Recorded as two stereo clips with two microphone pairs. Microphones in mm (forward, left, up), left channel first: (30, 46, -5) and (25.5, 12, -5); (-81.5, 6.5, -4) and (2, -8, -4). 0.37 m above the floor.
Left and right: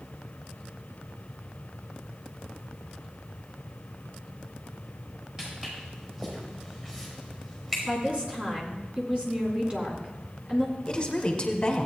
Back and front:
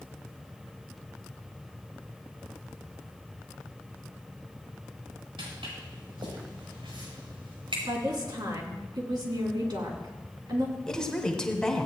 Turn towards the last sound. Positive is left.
turn(degrees=100)